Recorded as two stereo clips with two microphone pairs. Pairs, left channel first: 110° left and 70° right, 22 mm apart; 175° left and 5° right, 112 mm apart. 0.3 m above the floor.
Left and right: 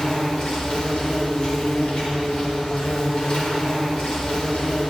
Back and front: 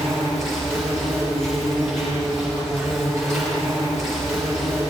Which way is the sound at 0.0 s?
85° left.